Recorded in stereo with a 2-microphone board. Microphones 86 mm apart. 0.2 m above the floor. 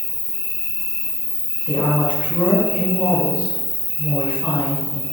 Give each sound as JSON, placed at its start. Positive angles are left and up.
{"t": 0.0, "sound": "an insect", "side_deg": -75, "distance_m": 0.9}
{"t": 1.7, "sound": "a woman speaking", "side_deg": -20, "distance_m": 2.0}